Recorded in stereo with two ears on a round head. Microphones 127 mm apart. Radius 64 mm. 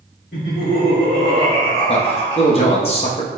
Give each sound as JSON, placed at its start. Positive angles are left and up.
{"t": 0.3, "sound": "laughter", "side_deg": 70, "distance_m": 1.9}
{"t": 1.9, "sound": "a man speaking", "side_deg": 45, "distance_m": 1.0}